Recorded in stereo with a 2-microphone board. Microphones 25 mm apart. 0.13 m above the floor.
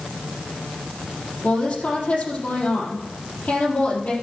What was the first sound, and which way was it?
A woman speaking, 70° left (ahead or behind).